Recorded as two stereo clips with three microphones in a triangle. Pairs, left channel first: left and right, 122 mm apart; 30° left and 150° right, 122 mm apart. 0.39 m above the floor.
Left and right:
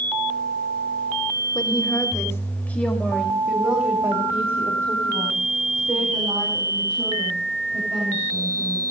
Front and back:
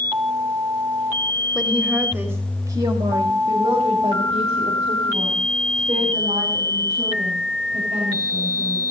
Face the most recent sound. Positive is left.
turn(degrees=-140)